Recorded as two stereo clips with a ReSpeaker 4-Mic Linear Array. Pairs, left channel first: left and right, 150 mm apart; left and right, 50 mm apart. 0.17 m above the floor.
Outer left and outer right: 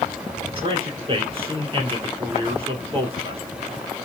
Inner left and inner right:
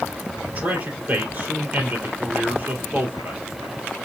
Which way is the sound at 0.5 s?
40° right (ahead or behind).